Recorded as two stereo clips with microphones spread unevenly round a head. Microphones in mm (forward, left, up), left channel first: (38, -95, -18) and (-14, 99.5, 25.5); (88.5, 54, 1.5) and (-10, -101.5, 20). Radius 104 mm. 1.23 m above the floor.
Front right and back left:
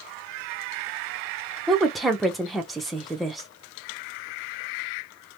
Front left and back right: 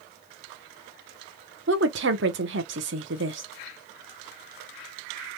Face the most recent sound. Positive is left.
turn(degrees=-165)